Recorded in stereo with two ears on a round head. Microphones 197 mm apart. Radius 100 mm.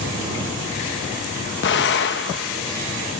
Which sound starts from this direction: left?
An explosion, at 1.6 s.